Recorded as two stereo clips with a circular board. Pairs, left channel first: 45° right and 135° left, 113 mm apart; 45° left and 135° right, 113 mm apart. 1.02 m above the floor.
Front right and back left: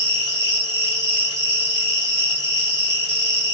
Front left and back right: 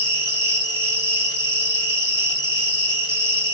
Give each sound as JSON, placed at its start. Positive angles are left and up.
{"t": 0.0, "sound": "an insect", "azimuth_deg": -5, "distance_m": 2.0}